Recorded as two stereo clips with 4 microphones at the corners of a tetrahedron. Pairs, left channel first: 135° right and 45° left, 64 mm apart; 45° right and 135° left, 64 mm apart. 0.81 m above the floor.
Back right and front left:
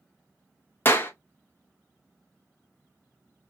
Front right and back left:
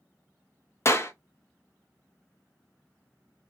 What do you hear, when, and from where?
0.8 s a clap: 80° right, 0.6 m